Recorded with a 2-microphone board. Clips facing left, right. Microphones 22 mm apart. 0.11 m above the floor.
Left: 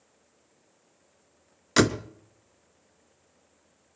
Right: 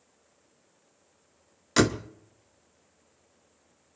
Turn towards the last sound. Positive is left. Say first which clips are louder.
# left 1 dB
turn(degrees=10)  # may be behind; listen again after turning